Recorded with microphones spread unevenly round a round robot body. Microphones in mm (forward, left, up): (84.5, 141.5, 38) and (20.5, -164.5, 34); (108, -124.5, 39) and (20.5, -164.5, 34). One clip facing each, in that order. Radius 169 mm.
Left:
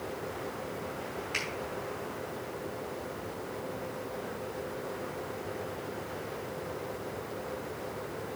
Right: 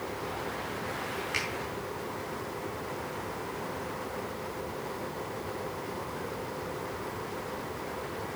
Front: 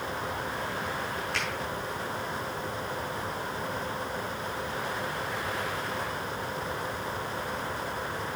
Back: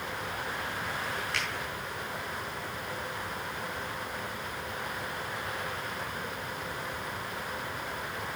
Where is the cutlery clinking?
No cutlery clinking in this recording.